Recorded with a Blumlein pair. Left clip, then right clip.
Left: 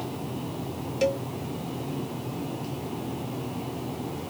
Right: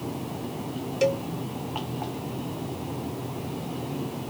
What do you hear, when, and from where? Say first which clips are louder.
1.0 s a cowbell: right 2 dB; 5° right